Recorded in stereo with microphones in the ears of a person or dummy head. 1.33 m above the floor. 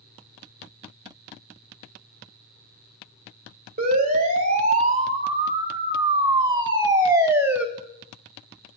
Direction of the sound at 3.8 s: 40° right (ahead or behind).